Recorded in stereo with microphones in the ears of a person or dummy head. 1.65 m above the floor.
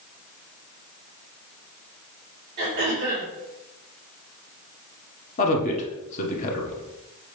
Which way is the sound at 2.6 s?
25° right (ahead or behind).